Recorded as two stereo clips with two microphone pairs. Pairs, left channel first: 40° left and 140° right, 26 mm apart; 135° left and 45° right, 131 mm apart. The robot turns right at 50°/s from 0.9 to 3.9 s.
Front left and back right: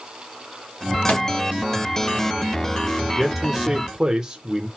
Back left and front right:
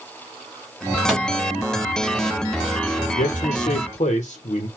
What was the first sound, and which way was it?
A microwave, 45° left.